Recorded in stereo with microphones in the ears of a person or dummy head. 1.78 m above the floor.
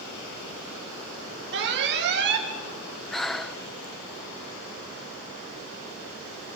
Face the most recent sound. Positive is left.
turn(degrees=0)  # may be behind; listen again after turning